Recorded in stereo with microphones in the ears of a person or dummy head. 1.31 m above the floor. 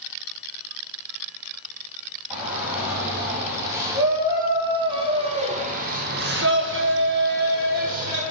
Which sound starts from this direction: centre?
A shout, at 2.3 s.